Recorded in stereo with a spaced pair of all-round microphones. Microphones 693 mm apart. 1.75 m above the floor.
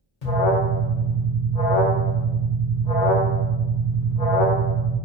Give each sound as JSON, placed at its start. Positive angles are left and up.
{"t": 0.2, "sound": "an alarm", "side_deg": 65, "distance_m": 1.9}